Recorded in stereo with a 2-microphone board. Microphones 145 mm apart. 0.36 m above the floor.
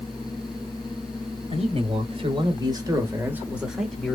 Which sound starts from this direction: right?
A man speaking, at 1.5 s.